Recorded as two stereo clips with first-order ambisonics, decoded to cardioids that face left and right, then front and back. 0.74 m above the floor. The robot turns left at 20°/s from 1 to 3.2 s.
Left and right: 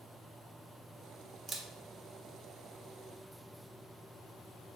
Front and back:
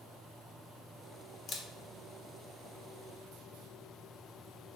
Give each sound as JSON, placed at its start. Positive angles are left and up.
{"t": 1.5, "sound": "a camera shutter", "azimuth_deg": -30, "distance_m": 0.6}